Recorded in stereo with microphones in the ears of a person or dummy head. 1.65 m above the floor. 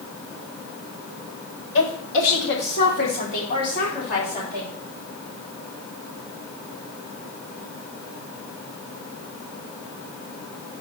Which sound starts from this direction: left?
A woman speaking, at 1.8 s.